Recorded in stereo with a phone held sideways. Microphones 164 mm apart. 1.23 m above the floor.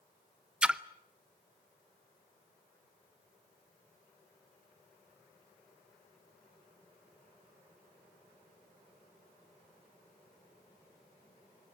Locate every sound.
0.6 s a splash: 5° right (ahead or behind), 0.6 m